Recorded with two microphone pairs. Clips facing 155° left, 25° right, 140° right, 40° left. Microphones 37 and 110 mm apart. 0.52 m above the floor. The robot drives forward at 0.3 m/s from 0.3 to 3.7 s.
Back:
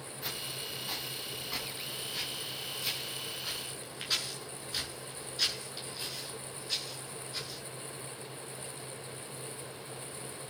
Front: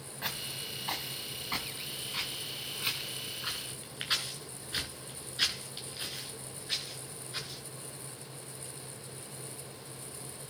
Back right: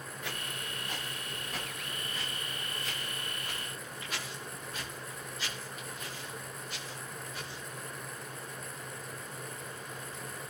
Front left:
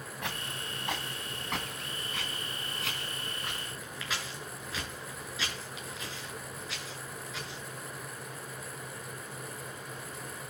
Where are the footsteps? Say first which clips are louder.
Front 2 dB, front left 3 dB; 30° left, 4 m; by 7.6 s 45° left, 7.5 m.